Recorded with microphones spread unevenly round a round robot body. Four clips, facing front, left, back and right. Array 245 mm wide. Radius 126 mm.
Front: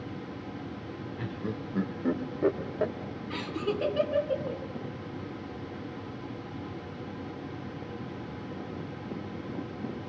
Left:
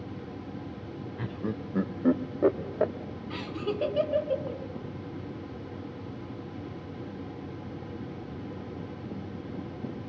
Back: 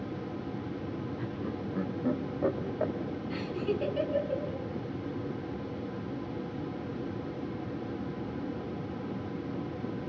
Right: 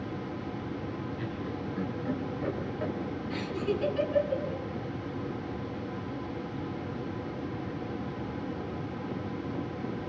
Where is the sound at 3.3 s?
45° left, 4.5 m.